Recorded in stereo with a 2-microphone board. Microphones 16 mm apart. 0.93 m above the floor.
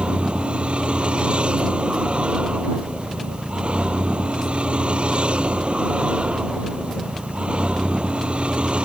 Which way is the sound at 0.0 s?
85° right.